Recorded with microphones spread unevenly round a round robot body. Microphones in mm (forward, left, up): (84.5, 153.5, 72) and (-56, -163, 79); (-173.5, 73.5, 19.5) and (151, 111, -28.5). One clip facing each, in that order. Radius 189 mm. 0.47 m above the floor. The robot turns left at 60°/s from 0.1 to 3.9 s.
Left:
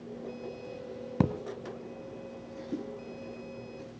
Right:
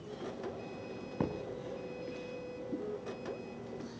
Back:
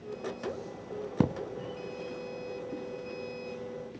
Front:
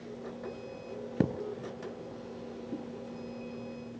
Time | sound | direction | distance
1.2 | a thud | 110° left | 1.2 m